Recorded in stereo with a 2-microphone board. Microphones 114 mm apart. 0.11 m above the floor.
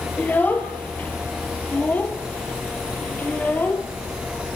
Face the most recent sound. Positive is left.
turn(degrees=15)  # may be behind; listen again after turning